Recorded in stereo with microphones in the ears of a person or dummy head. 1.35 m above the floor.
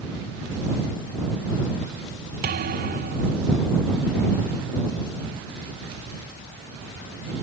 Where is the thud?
50° right (ahead or behind).